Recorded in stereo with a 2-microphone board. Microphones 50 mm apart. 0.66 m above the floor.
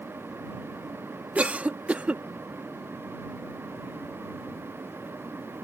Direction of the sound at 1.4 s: 30° right (ahead or behind).